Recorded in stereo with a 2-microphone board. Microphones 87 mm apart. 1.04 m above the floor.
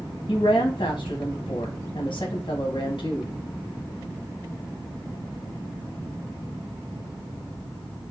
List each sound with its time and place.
0.3 s a woman speaking: 60° left (ahead or behind), 0.9 m